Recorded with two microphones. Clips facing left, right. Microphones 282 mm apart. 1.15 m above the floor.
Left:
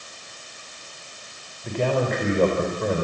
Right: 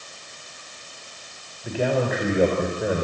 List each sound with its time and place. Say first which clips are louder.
1.6 s a man speaking: even; 5° right (ahead or behind), 4 m